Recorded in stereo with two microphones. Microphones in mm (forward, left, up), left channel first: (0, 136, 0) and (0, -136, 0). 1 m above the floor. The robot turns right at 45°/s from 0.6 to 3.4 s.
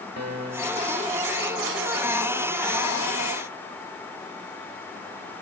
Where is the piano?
80° right, 1.9 m; by 1.0 s 70° right (ahead or behind), 1.9 m.